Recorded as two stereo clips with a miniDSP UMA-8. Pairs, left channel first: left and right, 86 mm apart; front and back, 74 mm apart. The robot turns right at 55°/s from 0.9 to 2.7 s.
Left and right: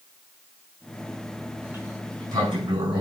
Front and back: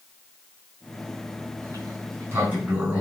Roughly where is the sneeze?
No sneeze in this recording.